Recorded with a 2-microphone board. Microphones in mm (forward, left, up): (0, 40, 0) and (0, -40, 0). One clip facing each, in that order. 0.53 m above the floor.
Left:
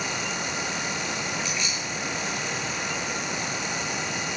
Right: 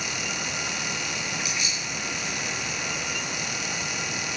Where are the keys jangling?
10° right (ahead or behind), 7.5 m.